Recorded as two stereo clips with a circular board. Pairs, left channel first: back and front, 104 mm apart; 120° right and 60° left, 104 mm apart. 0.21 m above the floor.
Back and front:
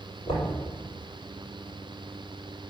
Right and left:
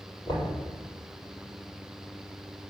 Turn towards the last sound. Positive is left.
turn(degrees=-165)